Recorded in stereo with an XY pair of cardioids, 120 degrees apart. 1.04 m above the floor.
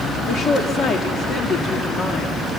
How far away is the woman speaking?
About 1.8 m.